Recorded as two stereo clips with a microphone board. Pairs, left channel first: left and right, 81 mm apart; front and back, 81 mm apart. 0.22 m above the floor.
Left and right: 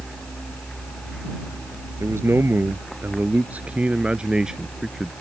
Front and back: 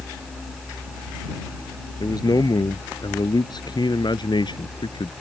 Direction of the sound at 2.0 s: 35° right.